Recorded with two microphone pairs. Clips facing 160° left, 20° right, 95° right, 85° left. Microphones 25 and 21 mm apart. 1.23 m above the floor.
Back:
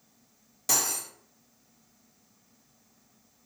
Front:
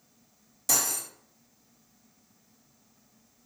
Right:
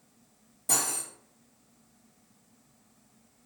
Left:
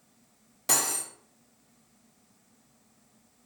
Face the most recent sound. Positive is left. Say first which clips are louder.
# even, left 2 dB
turn(degrees=85)